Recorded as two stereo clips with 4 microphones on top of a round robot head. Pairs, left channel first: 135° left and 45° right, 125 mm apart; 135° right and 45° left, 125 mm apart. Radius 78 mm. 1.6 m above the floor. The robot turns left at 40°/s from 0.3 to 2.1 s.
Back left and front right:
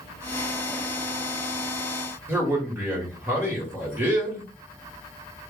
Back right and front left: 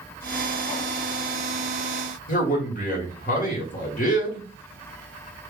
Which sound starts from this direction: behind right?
A man speaking, at 2.3 s.